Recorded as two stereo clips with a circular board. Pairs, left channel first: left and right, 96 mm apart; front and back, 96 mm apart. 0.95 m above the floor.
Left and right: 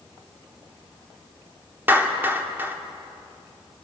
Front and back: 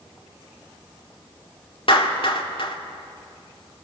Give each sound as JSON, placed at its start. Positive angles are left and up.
{"t": 1.9, "sound": "a clap", "azimuth_deg": -20, "distance_m": 2.0}